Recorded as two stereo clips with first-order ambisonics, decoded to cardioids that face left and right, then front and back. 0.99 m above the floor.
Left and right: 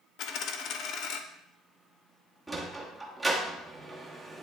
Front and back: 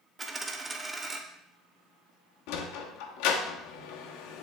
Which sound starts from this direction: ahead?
A sliding door, at 2.5 s.